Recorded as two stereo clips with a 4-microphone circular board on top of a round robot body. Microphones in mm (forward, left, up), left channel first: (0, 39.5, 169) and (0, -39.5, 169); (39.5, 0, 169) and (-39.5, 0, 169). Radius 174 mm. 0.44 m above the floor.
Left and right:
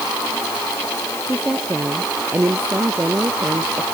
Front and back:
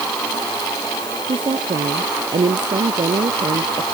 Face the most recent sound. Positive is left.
turn(degrees=-155)